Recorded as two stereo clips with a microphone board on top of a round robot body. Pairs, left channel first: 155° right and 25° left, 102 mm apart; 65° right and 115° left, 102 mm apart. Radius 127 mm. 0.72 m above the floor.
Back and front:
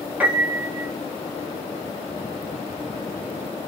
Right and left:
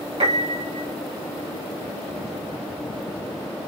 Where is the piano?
100° left, 1.8 m.